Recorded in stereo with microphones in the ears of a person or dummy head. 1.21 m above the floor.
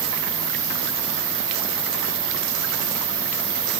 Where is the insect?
45° left (ahead or behind), 1.0 m.